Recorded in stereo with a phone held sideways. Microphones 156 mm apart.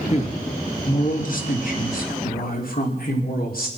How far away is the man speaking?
About 1.7 m.